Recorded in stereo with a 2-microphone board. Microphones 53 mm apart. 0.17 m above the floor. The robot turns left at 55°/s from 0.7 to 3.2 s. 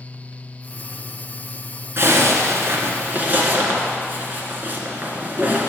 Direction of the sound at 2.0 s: 65° right.